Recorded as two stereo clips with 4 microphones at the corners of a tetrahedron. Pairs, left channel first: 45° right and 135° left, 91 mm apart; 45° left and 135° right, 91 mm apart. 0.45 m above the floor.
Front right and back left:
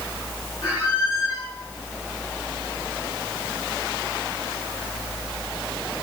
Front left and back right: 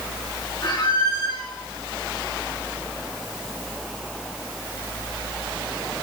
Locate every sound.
0.6 s a squeak: straight ahead, 4.5 m